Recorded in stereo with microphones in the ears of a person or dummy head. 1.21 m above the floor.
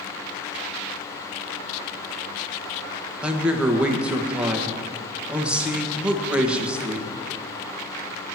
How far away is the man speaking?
About 1.4 m.